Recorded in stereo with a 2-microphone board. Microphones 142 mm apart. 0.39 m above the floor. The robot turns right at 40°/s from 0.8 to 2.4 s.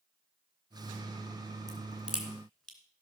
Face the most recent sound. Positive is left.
turn(degrees=5)  # may be behind; listen again after turning